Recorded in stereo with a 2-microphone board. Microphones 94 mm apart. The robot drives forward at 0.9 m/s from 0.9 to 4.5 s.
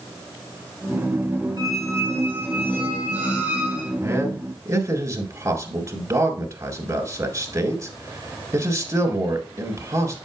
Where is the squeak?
45° right (ahead or behind), 1.1 m; by 3.9 s 15° right (ahead or behind), 3 m.